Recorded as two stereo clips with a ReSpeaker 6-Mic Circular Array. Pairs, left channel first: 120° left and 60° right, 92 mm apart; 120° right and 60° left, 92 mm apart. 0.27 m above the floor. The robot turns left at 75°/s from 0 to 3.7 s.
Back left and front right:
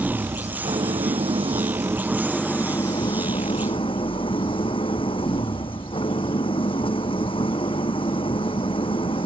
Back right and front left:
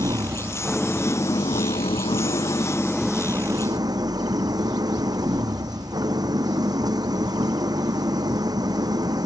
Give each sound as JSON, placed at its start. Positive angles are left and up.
{"t": 0.0, "sound": "an engine running", "azimuth_deg": 20}